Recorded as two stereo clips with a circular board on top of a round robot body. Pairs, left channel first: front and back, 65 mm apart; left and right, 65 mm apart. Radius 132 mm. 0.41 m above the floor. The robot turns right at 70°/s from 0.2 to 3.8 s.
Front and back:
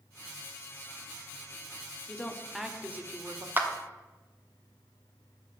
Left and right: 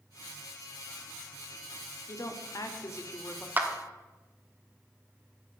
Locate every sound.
2.1 s a woman speaking: 60° left, 1.5 m; by 3.5 s 155° left, 1.5 m
3.6 s a clap: 135° right, 1.5 m; by 3.7 s 125° right, 1.5 m